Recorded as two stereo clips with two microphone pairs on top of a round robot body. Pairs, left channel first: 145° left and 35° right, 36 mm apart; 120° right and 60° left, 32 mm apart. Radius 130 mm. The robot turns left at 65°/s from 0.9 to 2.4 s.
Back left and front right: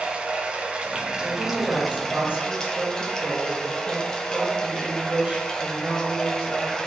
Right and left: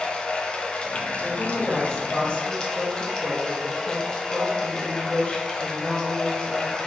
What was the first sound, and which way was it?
Running water, 80° right.